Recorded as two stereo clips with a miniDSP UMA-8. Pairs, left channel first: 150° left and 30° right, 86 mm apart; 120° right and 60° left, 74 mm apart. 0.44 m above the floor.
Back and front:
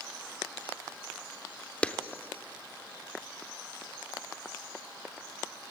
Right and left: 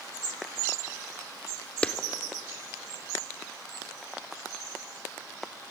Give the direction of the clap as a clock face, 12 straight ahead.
5 o'clock.